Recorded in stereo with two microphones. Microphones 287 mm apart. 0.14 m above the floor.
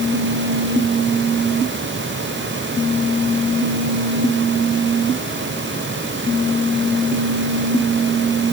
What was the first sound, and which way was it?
Only background noise.